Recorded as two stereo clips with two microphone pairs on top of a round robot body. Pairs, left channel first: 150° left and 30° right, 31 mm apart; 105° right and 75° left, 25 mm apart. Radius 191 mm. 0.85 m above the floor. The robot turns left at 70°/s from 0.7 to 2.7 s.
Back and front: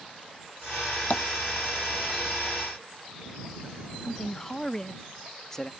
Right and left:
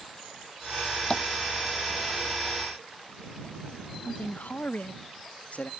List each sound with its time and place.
1.1 s tapping: 170° right; by 1.2 s straight behind
4.0 s a man speaking: 135° right